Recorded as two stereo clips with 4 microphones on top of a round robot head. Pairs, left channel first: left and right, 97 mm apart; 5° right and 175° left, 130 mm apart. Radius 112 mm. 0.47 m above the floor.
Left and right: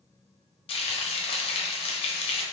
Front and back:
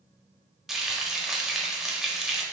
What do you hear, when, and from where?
0.7 s frying: 90° left, 0.6 m